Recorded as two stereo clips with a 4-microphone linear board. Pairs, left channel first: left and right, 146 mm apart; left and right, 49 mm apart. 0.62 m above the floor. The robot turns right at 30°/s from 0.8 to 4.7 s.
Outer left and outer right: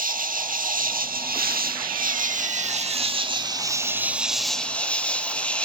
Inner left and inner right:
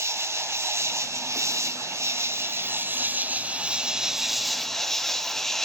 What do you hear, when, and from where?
0.0 s an insect: 110° right, 0.9 m; by 5.7 s 10° left, 0.9 m